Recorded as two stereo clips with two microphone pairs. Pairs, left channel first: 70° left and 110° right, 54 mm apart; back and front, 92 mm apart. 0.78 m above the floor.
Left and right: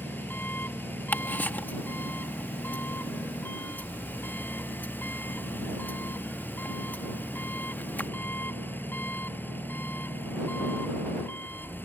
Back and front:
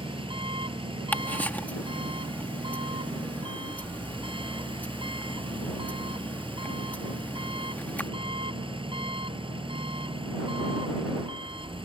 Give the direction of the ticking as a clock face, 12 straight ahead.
8 o'clock.